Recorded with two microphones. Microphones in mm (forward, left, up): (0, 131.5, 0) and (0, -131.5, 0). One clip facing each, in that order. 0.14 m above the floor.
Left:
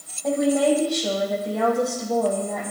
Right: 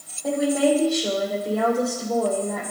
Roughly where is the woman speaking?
Centre.